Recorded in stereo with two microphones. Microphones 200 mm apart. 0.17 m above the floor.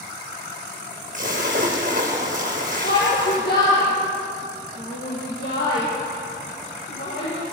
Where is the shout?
55° left (ahead or behind), 5 m.